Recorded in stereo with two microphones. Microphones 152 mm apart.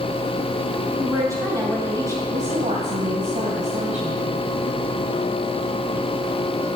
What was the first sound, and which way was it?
A woman speaking, 25° right (ahead or behind).